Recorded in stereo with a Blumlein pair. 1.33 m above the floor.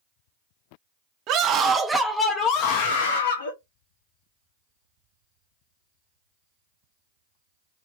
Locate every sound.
1.3 s a scream: 35° right, 0.8 m; by 3.5 s 75° left, 1.0 m